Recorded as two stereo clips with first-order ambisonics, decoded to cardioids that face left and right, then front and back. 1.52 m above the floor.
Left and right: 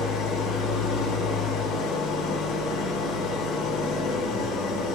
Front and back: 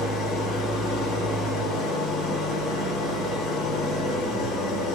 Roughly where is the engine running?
Ahead left.